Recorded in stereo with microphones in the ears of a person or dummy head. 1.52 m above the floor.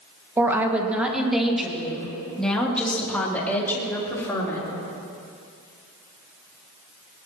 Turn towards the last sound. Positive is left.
turn(degrees=15)  # may be behind; listen again after turning